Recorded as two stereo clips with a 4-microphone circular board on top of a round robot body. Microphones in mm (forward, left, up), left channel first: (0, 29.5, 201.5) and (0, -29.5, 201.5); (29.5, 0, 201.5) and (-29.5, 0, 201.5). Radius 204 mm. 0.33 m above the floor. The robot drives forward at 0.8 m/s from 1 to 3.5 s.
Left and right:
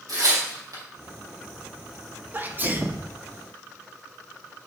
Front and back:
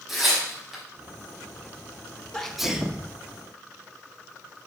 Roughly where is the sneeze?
Ahead right.